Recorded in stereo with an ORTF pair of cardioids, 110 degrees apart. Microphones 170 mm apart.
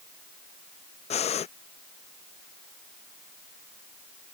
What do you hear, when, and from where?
1.1 s breathing: 40° left